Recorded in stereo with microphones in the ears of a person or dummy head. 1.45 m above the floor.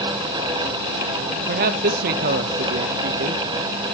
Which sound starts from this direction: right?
A man speaking, at 1.5 s.